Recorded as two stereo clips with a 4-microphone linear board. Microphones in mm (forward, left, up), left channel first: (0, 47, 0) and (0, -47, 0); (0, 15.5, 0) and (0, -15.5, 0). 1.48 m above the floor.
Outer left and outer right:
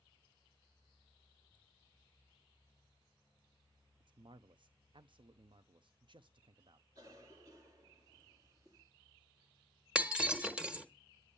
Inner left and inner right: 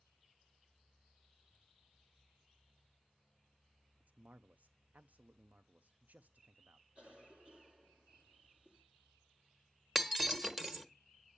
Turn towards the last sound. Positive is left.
turn(degrees=-10)  # may be behind; listen again after turning